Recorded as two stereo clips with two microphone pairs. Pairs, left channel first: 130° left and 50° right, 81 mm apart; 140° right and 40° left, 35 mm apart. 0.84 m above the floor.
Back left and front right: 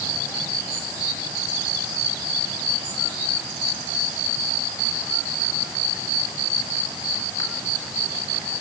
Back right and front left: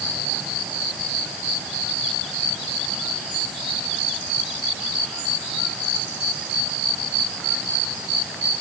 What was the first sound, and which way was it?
Only background noise.